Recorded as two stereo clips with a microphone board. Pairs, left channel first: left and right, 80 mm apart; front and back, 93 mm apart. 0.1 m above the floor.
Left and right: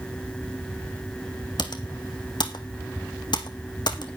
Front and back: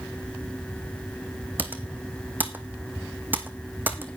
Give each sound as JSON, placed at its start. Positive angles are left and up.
{"t": 1.6, "sound": "typing on a keyboard", "azimuth_deg": 110, "distance_m": 1.3}